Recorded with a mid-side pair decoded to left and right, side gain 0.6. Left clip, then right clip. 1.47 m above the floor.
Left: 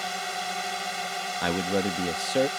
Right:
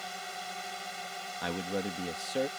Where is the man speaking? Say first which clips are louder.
Left 7 dB; 40° left.